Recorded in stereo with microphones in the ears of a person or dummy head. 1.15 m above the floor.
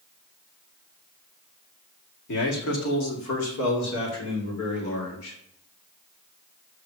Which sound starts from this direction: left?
A man speaking, at 2.3 s.